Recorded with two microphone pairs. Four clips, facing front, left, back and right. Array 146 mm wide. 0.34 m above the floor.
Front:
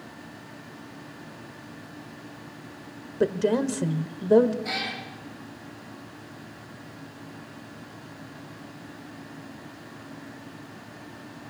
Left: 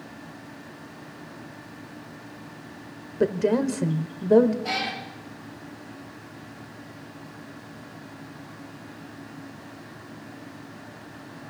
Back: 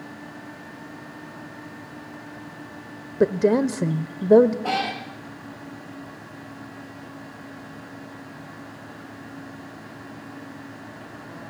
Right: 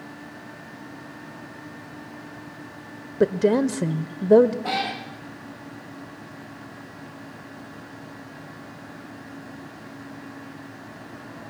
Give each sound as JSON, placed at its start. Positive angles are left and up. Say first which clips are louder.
{"t": 3.2, "sound": "a woman speaking", "louder": "right 3 dB, back 4 dB", "azimuth_deg": -150, "distance_m": 0.9}
{"t": 4.6, "sound": "a cat meowing", "louder": "right 3 dB, back 8 dB", "azimuth_deg": -160, "distance_m": 2.5}